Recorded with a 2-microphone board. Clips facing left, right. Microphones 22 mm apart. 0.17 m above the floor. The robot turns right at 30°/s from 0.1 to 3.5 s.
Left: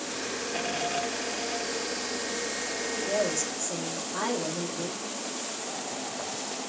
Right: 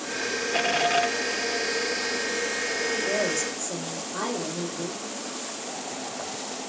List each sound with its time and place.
2.9 s a woman speaking: 30° right (ahead or behind), 5 m; by 5.0 s 15° right (ahead or behind), 5 m